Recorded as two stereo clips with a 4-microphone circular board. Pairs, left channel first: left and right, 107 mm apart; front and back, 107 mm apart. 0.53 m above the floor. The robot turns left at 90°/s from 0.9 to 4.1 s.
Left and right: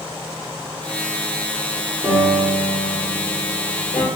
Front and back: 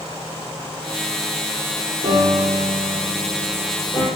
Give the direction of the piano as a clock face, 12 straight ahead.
6 o'clock.